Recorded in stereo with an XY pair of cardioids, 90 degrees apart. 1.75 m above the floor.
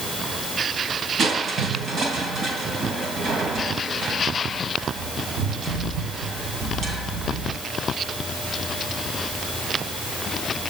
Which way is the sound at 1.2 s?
60° right.